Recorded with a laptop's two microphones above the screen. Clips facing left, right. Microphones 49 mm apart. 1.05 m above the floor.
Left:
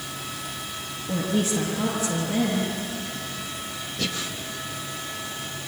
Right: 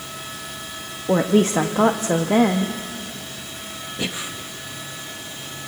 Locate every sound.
1.1 s a woman speaking: 65° right (ahead or behind), 1.2 m
4.0 s breathing: 20° right (ahead or behind), 1.6 m